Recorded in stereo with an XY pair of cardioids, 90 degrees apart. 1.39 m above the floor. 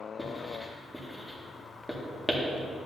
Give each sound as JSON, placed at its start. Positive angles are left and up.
{"t": 0.2, "sound": "writing", "azimuth_deg": 5, "distance_m": 1.9}